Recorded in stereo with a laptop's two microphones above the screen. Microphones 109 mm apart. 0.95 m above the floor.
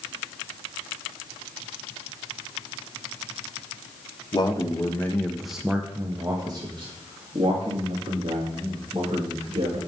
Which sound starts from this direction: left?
A man speaking, at 4.3 s.